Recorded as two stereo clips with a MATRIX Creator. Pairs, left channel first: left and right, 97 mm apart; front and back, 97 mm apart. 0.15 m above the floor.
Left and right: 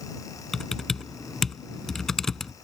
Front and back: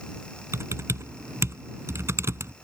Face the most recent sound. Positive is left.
turn(degrees=170)